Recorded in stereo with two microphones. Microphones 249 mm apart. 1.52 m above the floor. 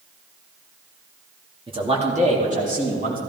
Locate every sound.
1.7 s a man speaking: 20° right (ahead or behind), 2 m; by 3.2 s 35° right (ahead or behind), 4 m